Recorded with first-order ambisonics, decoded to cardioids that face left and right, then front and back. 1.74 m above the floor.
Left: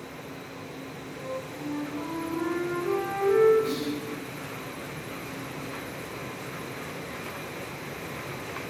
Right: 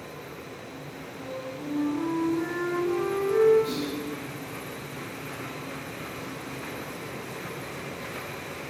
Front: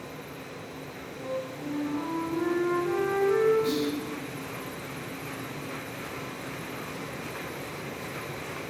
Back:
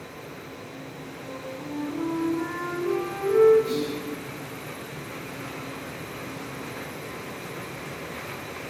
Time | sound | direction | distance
1.2 | a flute | 15° left | 1.5 m
3.6 | whispering | 5° right | 0.8 m